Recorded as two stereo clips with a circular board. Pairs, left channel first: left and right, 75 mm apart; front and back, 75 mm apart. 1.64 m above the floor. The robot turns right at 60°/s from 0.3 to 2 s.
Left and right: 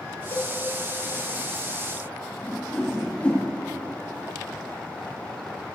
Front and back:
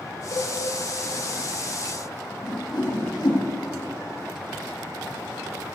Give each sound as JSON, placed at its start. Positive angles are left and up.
{"t": 0.3, "sound": "a cowbell", "azimuth_deg": 35, "distance_m": 3.0}
{"t": 2.4, "sound": "a whoosh", "azimuth_deg": 15, "distance_m": 4.0}